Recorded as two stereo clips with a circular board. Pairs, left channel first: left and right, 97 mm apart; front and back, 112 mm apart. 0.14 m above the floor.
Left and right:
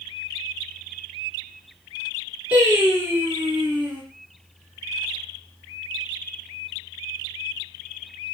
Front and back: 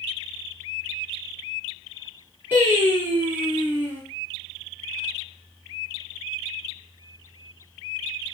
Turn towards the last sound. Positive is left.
turn(degrees=-130)